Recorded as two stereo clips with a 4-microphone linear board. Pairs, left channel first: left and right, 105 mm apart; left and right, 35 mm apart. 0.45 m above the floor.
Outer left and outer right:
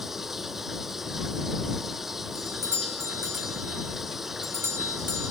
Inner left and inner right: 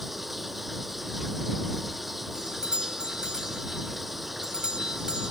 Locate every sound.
0.0 s running water: 5° right (ahead or behind)
2.4 s a doorbell: 25° right (ahead or behind)